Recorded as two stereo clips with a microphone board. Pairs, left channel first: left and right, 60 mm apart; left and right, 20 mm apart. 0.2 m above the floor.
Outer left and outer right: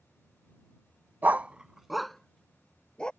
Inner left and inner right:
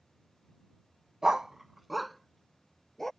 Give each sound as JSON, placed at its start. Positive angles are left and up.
{"t": 1.2, "sound": "a dog barking", "side_deg": -35}